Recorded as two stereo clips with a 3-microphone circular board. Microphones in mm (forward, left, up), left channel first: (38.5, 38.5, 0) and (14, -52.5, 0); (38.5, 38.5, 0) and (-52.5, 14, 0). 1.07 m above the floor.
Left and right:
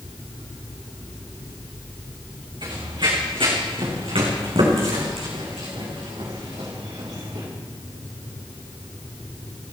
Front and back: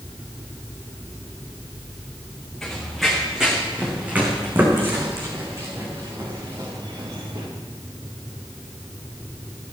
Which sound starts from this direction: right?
Running footsteps, at 2.6 s.